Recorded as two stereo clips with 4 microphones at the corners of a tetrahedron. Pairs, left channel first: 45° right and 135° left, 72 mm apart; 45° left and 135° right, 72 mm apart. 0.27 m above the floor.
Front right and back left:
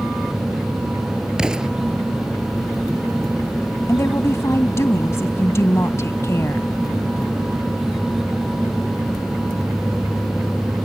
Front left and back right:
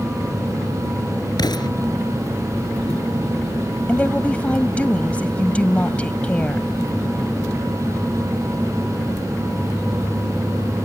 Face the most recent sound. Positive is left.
turn(degrees=-20)